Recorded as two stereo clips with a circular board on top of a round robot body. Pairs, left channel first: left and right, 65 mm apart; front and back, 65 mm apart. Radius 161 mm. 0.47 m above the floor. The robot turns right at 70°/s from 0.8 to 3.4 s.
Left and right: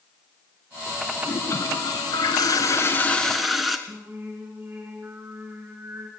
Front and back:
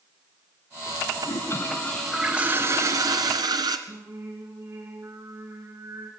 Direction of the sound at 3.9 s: 145° right.